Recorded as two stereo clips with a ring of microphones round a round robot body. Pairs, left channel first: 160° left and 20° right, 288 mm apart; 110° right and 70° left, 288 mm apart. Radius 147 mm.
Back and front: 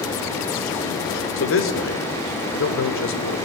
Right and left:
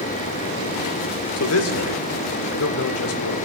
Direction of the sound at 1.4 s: 155° right.